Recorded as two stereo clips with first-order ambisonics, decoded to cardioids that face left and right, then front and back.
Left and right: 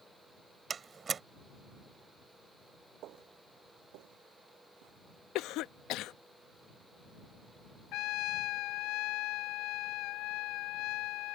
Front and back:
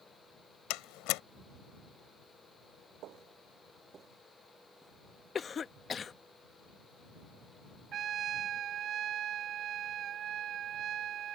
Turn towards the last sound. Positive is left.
turn(degrees=120)